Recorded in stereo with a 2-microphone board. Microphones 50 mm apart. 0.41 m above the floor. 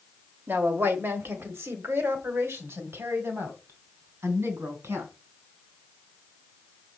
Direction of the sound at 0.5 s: 45° right (ahead or behind).